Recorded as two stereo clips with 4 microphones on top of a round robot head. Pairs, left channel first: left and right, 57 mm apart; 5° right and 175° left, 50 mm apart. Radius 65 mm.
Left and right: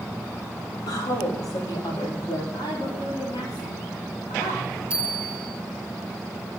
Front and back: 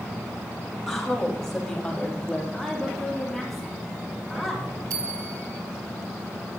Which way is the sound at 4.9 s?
165° right.